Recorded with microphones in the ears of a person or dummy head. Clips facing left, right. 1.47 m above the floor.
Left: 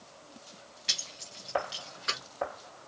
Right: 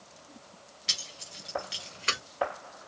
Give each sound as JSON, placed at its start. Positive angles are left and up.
{"t": 0.9, "sound": "keys jangling", "side_deg": 0, "distance_m": 1.2}